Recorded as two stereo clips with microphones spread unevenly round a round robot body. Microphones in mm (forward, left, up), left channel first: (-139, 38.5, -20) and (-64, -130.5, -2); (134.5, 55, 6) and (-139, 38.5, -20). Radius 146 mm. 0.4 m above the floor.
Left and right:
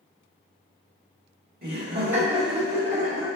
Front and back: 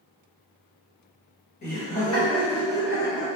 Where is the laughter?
60° right, 1.5 m.